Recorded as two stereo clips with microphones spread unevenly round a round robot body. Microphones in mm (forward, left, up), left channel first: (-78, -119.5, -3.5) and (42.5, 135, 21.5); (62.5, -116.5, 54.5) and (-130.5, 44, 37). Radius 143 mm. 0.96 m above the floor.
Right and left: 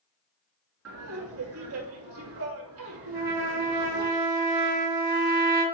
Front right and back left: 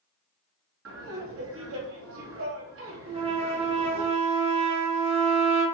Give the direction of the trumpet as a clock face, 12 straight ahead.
10 o'clock.